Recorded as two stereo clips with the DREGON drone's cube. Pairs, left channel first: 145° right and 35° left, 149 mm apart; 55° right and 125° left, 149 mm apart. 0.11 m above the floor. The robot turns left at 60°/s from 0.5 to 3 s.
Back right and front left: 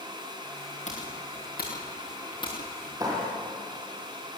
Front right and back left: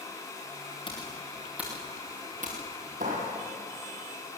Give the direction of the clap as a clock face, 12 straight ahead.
9 o'clock.